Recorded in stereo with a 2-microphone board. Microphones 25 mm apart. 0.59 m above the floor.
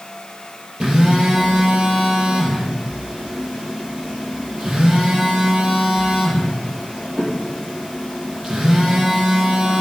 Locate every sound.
0.8 s a phone buzzing: 35° right (ahead or behind), 5 m